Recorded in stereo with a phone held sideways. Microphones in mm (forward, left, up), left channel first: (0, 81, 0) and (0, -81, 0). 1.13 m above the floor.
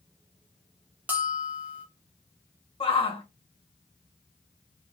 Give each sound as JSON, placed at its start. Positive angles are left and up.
{"t": 1.1, "sound": "a bell", "side_deg": -10, "distance_m": 0.7}
{"t": 2.8, "sound": "a shout", "side_deg": 35, "distance_m": 1.1}